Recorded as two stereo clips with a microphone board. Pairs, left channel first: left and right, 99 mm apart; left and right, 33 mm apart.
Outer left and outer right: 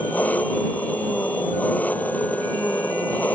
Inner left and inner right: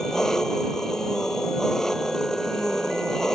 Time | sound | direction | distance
0.0 | an engine running | 15° left (ahead or behind) | ?